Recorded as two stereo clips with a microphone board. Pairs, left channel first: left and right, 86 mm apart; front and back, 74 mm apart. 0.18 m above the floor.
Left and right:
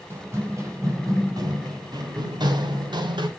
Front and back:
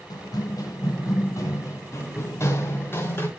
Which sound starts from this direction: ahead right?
Running footsteps, at 0.1 s.